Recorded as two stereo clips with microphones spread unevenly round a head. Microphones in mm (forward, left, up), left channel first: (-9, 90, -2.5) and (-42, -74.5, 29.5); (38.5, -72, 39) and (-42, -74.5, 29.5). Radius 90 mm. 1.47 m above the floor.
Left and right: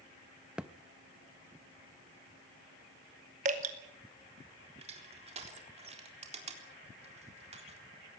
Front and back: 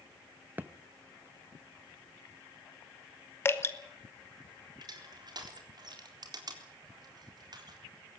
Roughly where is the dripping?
Ahead right.